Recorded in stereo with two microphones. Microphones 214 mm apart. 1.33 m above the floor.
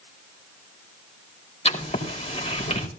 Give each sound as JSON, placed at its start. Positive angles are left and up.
{"t": 1.6, "sound": "writing", "side_deg": 30, "distance_m": 4.0}